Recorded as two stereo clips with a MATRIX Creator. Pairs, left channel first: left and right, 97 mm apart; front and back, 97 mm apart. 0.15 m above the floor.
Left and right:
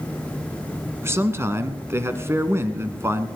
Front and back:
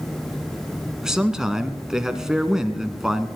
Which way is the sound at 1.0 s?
105° right.